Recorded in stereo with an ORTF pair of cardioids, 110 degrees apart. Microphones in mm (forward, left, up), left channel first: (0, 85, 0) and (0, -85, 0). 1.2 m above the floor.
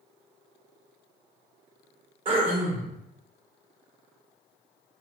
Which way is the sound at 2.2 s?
35° right.